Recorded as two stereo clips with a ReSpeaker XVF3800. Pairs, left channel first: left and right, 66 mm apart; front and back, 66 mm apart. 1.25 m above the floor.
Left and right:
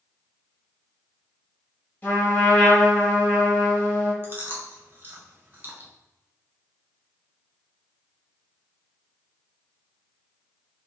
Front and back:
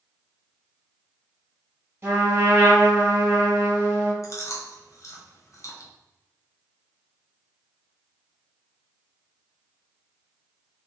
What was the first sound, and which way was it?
A trumpet, 145° left.